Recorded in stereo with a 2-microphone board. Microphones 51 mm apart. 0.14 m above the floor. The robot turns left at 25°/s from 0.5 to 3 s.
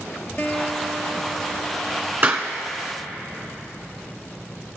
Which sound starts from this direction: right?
A clap, at 2.2 s.